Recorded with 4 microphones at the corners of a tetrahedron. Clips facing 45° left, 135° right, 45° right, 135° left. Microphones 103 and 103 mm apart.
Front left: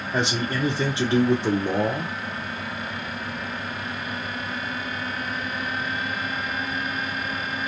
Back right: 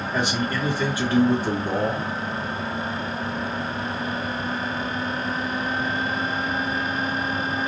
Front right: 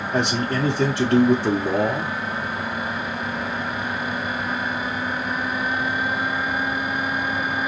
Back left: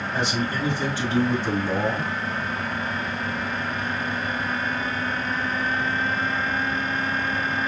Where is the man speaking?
20° right, 0.6 m.